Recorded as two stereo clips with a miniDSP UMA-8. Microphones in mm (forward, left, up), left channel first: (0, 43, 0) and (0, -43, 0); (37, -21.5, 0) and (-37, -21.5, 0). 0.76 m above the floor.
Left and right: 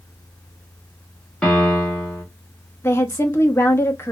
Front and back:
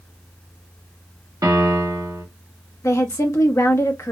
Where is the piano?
165° left, 1.1 m.